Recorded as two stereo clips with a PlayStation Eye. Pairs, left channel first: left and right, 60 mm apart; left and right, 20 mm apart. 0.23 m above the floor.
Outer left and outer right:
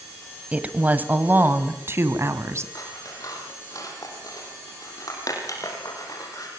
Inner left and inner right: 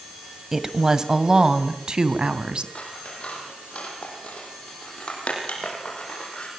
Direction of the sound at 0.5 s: 20° right (ahead or behind).